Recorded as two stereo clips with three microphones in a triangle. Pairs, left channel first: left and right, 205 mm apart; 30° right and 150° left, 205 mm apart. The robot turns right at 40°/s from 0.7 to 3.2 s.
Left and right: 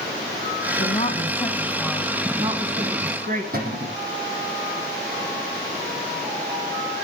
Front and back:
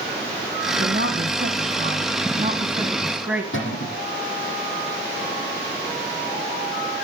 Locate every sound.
0.8 s a woman speaking: 135° left, 2.0 m; by 3.4 s 125° right, 2.0 m
3.5 s a cupboard door: 45° right, 7.5 m